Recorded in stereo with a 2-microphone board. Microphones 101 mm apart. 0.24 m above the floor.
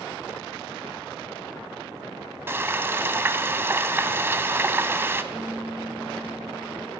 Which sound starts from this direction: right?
Frying, at 2.5 s.